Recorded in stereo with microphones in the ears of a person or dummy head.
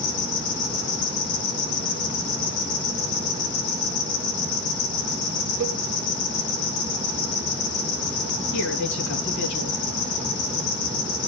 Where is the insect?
65° left (ahead or behind), 4 m.